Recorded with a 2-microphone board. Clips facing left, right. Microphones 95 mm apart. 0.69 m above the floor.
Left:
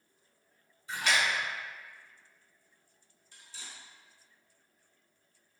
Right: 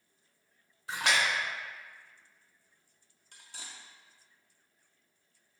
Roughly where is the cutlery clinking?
Right.